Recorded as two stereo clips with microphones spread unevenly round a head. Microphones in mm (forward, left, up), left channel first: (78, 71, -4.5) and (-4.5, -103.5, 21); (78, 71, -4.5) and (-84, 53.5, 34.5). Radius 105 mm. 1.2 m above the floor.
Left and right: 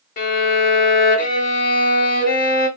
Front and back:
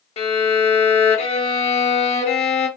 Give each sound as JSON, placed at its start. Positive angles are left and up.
{"t": 0.2, "sound": "a violin", "azimuth_deg": 50, "distance_m": 1.0}